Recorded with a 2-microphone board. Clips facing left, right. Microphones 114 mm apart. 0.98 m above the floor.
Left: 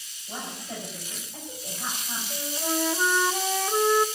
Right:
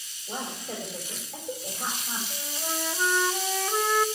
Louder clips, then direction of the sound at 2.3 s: Left 9 dB; 10° left (ahead or behind).